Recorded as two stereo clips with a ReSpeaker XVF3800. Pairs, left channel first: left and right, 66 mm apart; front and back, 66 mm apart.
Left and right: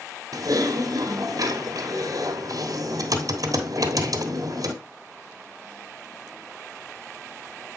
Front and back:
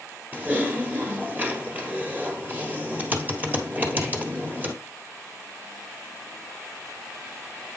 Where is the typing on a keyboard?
115° right, 1.4 m.